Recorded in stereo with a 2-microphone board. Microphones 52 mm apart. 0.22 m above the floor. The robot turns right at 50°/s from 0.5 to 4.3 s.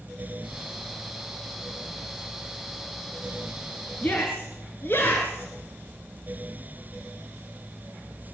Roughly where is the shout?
Left.